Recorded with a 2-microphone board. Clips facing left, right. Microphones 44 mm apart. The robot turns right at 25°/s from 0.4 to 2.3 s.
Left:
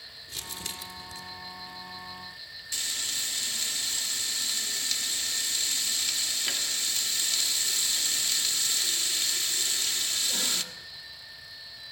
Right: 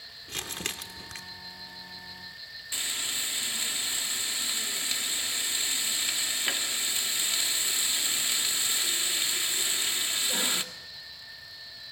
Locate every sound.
0.3 s crumpling: 50° right (ahead or behind), 1.3 m; by 1.2 s 65° right (ahead or behind), 1.3 m
2.7 s frying: 20° right (ahead or behind), 1.4 m